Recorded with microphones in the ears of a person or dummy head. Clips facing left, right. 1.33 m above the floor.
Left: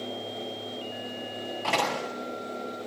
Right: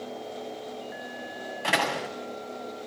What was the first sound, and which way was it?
A door slam, 20° right (ahead or behind).